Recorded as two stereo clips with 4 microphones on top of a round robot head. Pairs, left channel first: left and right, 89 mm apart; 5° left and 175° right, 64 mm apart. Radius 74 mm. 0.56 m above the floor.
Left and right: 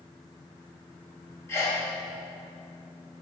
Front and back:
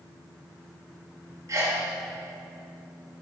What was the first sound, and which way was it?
A sneeze, 150° left.